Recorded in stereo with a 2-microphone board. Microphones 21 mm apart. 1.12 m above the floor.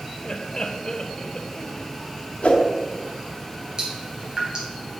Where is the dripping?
40° right (ahead or behind), 3 m.